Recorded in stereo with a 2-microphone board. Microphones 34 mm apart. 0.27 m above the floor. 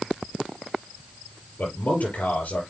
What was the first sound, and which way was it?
A man speaking, 50° left (ahead or behind).